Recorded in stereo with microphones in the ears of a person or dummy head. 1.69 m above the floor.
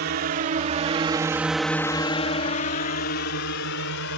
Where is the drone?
50° right (ahead or behind); by 4.2 s 65° left (ahead or behind).